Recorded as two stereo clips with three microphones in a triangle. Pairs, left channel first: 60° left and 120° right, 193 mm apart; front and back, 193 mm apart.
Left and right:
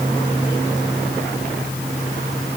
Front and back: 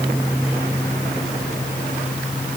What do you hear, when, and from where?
Only background noise.